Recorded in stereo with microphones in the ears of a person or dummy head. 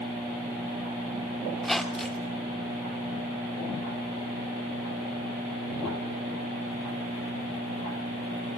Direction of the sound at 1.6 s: Centre (ahead or behind).